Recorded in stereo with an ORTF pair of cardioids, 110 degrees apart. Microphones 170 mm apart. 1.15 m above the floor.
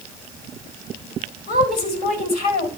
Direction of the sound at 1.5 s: 65° left.